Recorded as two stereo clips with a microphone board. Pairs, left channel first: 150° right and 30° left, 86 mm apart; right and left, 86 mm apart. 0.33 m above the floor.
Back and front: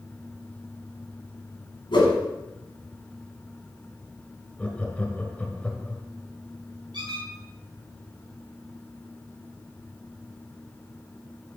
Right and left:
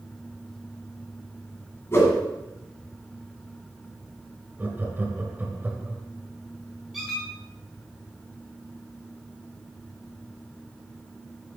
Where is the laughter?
145° left, 1.3 m.